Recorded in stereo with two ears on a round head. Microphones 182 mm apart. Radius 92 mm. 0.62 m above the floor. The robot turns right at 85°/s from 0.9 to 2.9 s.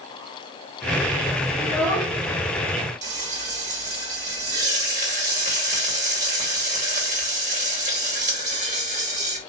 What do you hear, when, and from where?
1.6 s a child speaking: 65° right, 1.5 m; by 2.1 s 15° right, 1.5 m
3.0 s frying: 35° right (ahead or behind), 1.2 m